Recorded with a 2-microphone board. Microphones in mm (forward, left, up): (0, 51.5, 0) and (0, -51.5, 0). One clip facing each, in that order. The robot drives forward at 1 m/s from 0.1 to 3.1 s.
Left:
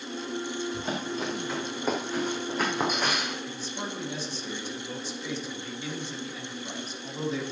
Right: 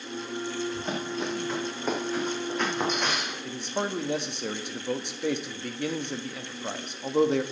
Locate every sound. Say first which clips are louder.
0.7 s running footsteps: even; 5° left (ahead or behind), 4.5 m; by 3.4 s 10° left (ahead or behind), 3.5 m
3.5 s a man speaking: right 5 dB; 65° right (ahead or behind), 1.3 m